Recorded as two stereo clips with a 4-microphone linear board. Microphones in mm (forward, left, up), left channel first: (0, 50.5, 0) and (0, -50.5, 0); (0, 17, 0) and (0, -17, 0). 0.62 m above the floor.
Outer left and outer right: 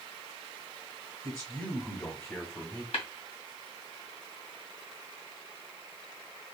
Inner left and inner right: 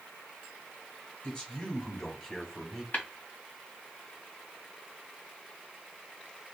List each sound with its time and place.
1.2 s a man speaking: 35° left (ahead or behind), 3 m; by 2.8 s 20° left (ahead or behind), 2.0 m
2.9 s tapping: 75° left (ahead or behind), 2.5 m